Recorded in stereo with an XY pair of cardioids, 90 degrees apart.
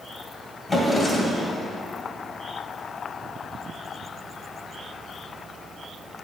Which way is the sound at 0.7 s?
25° left.